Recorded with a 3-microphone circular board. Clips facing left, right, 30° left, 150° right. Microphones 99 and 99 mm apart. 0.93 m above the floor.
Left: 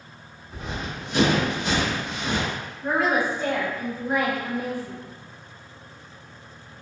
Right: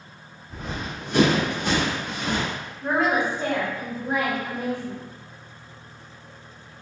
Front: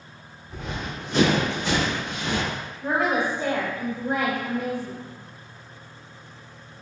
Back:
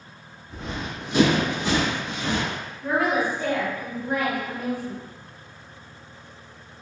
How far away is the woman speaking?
About 1.1 m.